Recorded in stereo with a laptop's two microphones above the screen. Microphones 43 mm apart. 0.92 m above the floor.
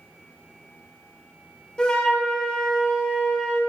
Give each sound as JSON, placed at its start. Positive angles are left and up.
{"t": 1.8, "sound": "a flute", "side_deg": 25, "distance_m": 1.0}